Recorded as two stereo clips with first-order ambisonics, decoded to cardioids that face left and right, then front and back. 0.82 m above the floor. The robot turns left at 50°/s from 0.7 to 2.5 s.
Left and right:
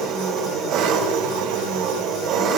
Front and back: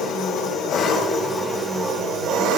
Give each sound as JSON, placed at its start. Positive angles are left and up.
{"t": 0.0, "sound": "an engine running", "azimuth_deg": -60, "distance_m": 2.5}